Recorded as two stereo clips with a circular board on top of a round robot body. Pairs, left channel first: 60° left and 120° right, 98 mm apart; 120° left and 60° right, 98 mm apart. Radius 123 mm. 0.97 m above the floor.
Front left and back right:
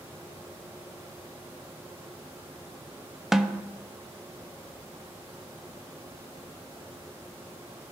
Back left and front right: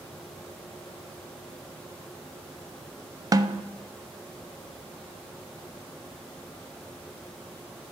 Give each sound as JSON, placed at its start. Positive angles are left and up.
{"t": 3.3, "sound": "a snare drum", "azimuth_deg": -35, "distance_m": 0.6}